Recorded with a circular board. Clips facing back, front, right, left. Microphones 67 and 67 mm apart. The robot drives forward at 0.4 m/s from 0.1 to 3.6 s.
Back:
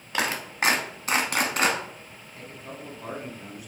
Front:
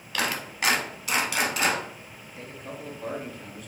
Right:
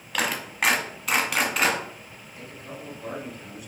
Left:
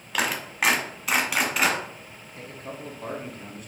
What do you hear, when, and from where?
0.1 s a clap: 175° left, 0.8 m; by 1.8 s straight behind, 1.2 m
2.4 s a man speaking: 70° left, 1.2 m; by 3.7 s 105° left, 1.2 m